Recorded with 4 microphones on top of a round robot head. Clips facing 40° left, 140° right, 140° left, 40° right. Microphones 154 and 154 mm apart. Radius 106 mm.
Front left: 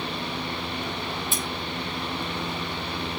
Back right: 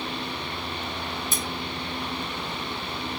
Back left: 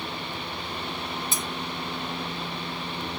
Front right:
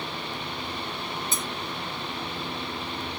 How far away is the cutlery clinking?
About 3 m.